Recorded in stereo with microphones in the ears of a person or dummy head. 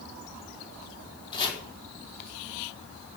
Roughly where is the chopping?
Left.